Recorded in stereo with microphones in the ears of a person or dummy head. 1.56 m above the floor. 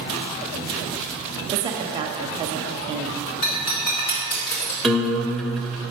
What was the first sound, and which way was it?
A woman speaking, 25° right (ahead or behind).